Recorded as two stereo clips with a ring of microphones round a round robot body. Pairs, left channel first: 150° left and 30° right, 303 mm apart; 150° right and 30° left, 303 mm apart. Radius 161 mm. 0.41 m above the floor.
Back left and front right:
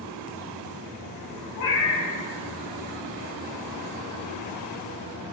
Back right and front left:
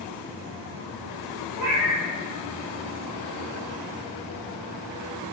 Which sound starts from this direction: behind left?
A cat meowing, at 1.6 s.